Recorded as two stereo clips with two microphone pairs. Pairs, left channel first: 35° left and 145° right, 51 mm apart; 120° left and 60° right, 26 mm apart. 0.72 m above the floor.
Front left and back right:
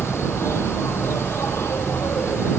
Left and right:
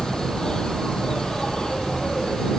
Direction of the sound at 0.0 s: 55° left.